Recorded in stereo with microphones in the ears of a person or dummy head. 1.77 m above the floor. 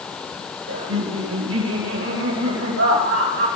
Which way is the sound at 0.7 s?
90° right.